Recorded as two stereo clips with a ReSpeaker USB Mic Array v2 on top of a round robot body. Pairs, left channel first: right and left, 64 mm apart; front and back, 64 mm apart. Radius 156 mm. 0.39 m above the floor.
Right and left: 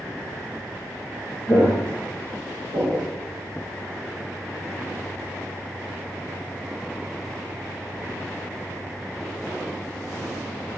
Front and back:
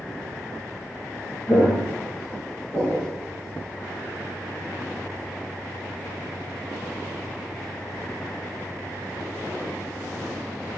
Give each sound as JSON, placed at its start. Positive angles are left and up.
{"t": 1.5, "sound": "footsteps", "azimuth_deg": -55, "distance_m": 0.9}